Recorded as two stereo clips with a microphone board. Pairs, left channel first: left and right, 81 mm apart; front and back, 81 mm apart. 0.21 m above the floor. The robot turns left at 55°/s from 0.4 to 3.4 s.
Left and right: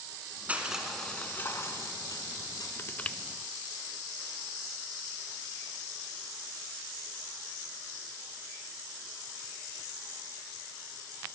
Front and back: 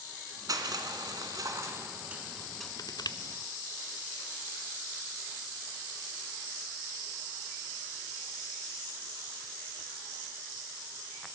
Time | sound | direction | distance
0.5 | crushing | 155° right | 2 m
2.8 | crushing | 35° left | 0.7 m